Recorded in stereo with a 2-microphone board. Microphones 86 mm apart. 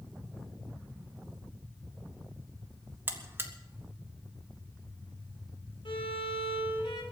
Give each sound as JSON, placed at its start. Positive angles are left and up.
{"t": 3.1, "sound": "a buzzer", "side_deg": -25, "distance_m": 1.4}
{"t": 5.8, "sound": "a violin", "side_deg": 75, "distance_m": 3.0}